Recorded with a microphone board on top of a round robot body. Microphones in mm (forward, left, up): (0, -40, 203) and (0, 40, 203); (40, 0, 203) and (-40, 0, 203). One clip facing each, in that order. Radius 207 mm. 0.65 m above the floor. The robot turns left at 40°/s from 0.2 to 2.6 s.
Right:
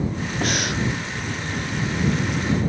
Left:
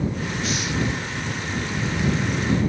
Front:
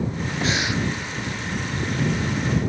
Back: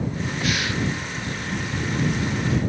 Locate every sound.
0.4 s breathing: 60° right; by 0.8 s 75° right